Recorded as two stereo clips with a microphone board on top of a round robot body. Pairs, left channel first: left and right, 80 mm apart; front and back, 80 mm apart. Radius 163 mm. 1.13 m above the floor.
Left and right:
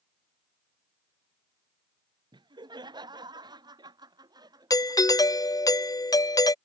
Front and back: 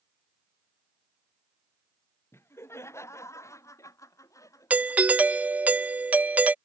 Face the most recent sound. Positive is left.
turn(degrees=115)